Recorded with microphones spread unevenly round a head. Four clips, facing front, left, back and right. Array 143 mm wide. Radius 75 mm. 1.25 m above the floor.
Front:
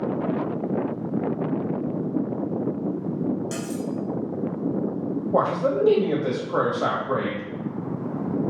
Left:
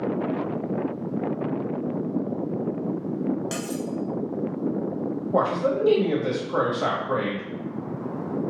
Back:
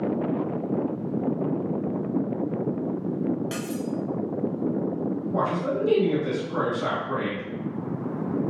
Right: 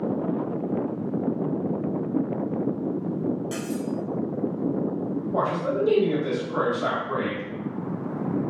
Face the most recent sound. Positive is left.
turn(degrees=25)